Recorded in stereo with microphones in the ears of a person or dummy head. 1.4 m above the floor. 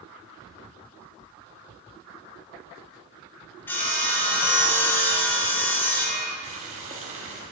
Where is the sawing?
10° left (ahead or behind), 1.4 m.